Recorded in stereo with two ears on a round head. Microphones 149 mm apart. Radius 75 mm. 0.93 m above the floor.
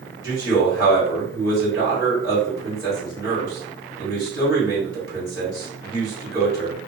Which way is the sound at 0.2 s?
20° right (ahead or behind).